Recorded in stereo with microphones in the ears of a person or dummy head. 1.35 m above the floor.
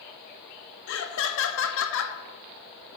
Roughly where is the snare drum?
I don't hear a snare drum.